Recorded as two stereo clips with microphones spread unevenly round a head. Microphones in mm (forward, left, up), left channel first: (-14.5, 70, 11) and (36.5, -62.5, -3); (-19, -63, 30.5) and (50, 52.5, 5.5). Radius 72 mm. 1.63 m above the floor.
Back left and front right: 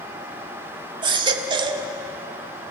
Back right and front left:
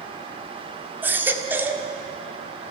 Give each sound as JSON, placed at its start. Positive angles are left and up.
{"t": 1.0, "sound": "a baby crying", "azimuth_deg": -25, "distance_m": 1.4}